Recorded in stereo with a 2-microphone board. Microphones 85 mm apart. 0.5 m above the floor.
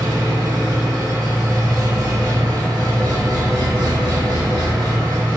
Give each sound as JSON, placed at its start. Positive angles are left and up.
{"t": 0.0, "sound": "an engine running", "side_deg": -55, "distance_m": 0.8}